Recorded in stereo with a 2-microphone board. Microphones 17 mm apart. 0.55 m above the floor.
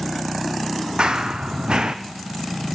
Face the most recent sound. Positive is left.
turn(degrees=-65)  # may be behind; listen again after turning